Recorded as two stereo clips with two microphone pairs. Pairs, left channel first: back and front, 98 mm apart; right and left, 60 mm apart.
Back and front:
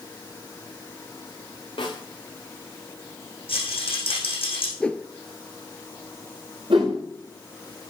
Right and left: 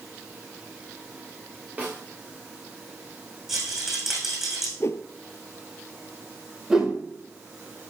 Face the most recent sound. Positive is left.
turn(degrees=10)